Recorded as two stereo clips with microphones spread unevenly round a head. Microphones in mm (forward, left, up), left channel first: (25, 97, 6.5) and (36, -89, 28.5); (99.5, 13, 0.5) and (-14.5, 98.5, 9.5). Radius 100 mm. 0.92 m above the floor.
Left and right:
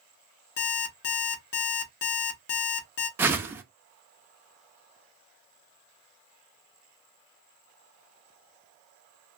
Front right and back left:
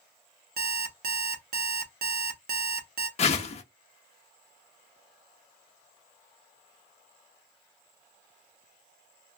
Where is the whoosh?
20° right, 0.5 m.